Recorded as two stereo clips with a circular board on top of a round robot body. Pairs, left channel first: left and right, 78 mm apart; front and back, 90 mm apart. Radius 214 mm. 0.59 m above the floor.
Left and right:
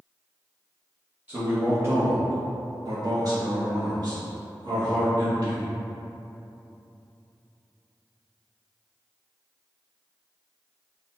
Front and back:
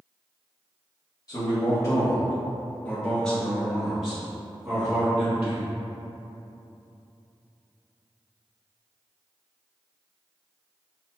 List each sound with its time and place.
1.3 s a man speaking: 25° right, 1.5 m; by 5.7 s 110° right, 2.5 m